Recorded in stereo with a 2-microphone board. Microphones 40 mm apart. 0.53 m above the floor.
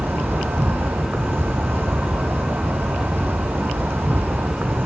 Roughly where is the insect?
Right.